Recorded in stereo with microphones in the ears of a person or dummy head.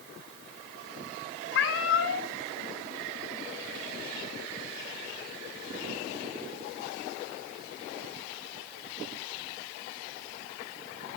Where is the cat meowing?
65° left (ahead or behind), 1.8 m.